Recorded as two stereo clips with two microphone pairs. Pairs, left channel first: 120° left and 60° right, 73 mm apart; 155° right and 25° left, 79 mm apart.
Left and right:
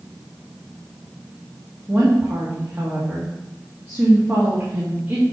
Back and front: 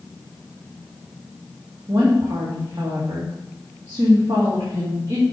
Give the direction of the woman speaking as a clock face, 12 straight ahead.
12 o'clock.